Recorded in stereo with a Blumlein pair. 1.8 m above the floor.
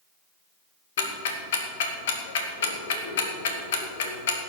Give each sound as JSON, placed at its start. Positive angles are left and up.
{"t": 1.0, "sound": "ticking", "azimuth_deg": 55, "distance_m": 2.0}